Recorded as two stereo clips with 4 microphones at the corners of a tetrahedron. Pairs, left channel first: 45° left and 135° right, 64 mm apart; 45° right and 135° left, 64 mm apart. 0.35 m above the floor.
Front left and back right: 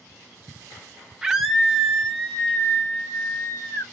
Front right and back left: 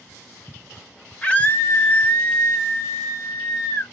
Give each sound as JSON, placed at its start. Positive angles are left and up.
{"t": 1.2, "sound": "a scream", "azimuth_deg": -75, "distance_m": 0.9}